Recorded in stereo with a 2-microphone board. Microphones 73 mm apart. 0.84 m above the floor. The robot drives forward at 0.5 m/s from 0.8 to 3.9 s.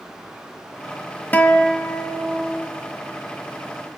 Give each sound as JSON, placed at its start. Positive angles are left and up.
{"t": 1.3, "sound": "a guitar", "side_deg": 25, "distance_m": 1.1}